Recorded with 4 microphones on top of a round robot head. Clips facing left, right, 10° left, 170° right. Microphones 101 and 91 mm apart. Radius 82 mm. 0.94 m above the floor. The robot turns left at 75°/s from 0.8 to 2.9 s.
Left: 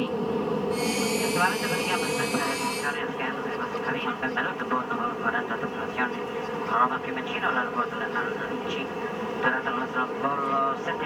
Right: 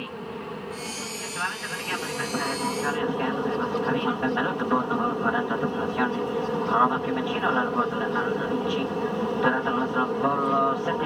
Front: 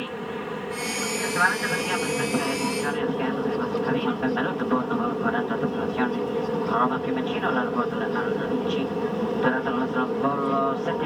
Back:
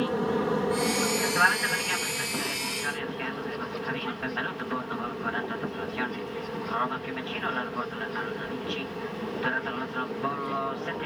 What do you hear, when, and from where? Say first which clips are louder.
0.0 s an aircraft: left 8 dB, back 5 dB; 130° left; by 11.1 s 30° right